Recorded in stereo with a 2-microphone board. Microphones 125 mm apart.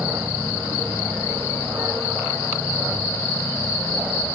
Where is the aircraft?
15° right (ahead or behind).